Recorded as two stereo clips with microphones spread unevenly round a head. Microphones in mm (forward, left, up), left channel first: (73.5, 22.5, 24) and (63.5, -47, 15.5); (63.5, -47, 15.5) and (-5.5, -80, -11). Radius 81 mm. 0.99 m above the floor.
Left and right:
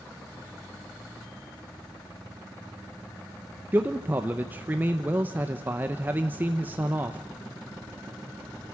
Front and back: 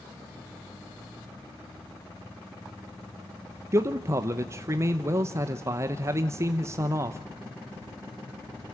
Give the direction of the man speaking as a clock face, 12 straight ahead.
5 o'clock.